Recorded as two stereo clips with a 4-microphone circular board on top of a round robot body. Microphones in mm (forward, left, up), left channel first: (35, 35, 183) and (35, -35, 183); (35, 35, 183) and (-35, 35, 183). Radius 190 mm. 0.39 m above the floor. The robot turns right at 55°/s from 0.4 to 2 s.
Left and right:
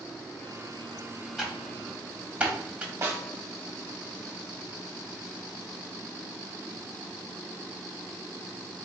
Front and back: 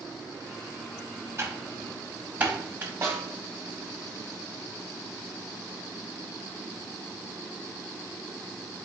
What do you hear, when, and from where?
1.4 s typing on a keyboard: 175° right, 1.4 m; by 2.9 s 140° right, 1.4 m
3.0 s a snare drum: 130° right, 1.3 m